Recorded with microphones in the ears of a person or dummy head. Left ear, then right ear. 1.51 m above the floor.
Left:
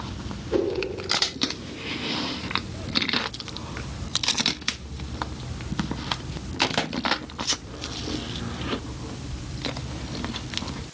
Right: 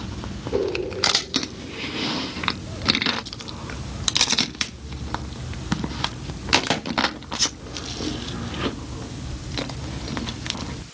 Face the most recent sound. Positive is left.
turn(degrees=55)  # may be behind; listen again after turning